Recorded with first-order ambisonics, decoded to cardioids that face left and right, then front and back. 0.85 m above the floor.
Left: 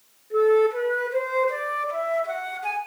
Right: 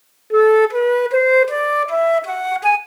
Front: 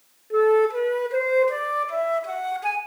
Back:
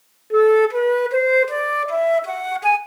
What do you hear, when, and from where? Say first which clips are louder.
0.3 s a flute: right 7 dB, back 4 dB; 115° right, 0.7 m